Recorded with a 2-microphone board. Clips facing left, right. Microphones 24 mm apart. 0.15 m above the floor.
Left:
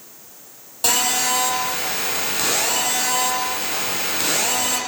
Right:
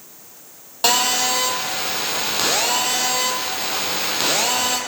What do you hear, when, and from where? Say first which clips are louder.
0.8 s a phone buzzing: right 2 dB; 25° right (ahead or behind), 4 m